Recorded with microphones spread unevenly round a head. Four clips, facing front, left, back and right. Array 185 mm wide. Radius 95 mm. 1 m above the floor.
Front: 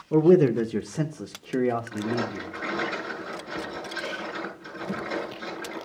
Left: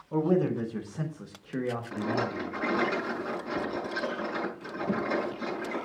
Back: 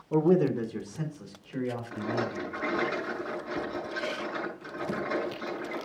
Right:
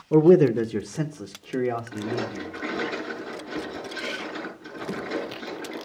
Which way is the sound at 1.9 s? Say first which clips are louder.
Right 1 dB, front 3 dB; 85° left.